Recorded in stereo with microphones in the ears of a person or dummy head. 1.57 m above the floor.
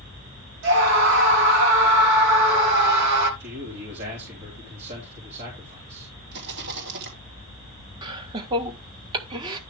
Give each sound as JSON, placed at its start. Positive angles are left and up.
{"t": 0.6, "sound": "a scream", "side_deg": -75, "distance_m": 3.5}
{"t": 3.4, "sound": "a man speaking", "side_deg": -55, "distance_m": 3.0}
{"t": 6.3, "sound": "a rattle", "side_deg": -60, "distance_m": 3.5}
{"t": 8.0, "sound": "laughter", "side_deg": -25, "distance_m": 1.6}